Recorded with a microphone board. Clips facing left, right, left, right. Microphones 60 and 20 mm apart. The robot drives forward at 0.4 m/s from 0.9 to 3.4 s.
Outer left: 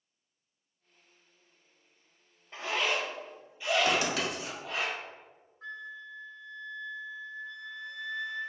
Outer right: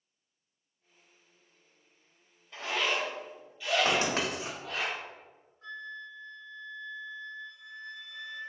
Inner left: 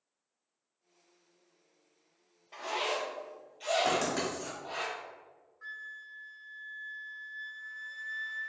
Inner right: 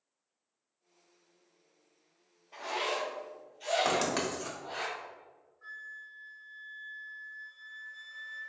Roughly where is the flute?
Left.